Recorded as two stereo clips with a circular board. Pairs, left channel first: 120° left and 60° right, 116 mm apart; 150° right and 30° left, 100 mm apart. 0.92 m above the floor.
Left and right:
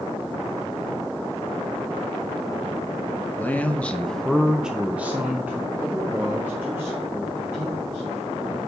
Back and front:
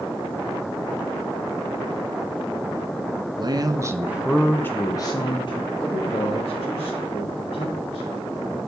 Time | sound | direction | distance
3.4 | a man speaking | 50° left | 0.8 m